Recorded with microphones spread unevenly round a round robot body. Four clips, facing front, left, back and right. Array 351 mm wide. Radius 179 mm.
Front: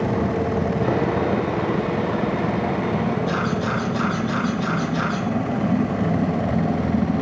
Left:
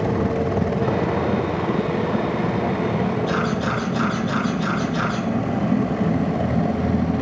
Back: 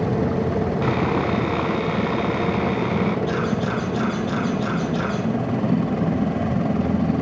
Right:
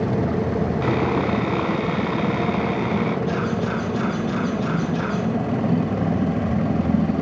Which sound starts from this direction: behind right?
Sawing, at 0.8 s.